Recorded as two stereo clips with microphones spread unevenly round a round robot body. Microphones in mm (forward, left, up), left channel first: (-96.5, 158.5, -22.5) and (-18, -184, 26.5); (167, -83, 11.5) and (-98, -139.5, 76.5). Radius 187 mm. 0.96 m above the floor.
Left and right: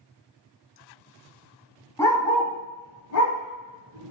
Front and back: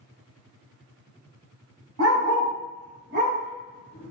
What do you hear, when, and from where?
2.0 s a dog barking: 170° right, 1.7 m; by 4.1 s 110° left, 1.5 m